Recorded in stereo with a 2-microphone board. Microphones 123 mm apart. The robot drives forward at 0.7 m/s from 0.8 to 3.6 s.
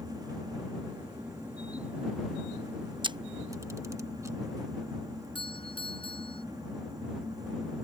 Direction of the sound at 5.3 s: 45° left (ahead or behind).